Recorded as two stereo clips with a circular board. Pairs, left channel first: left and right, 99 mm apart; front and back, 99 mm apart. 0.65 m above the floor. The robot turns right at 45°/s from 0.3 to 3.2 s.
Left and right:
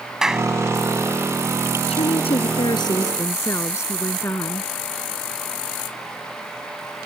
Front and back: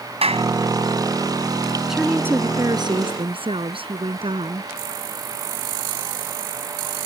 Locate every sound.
0.2 s a clap: 175° right; by 0.5 s 165° right
1.9 s a woman speaking: 95° left; by 4.7 s 150° left